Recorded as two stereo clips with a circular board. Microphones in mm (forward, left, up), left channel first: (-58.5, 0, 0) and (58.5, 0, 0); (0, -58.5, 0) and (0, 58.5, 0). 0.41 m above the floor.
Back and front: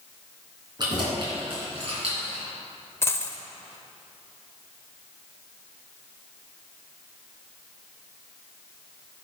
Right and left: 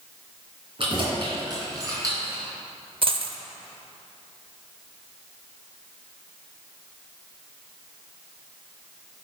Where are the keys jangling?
50° left, 3 m; by 2.4 s 25° left, 3.5 m.